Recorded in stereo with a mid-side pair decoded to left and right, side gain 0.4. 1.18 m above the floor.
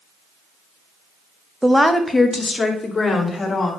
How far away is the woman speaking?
About 1.0 m.